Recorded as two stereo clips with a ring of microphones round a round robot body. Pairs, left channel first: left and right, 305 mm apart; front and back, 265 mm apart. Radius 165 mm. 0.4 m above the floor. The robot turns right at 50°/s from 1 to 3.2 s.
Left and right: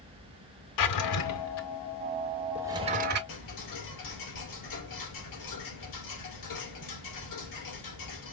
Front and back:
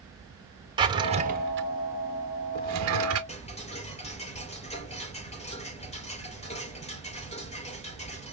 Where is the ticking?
65° left, 3 m.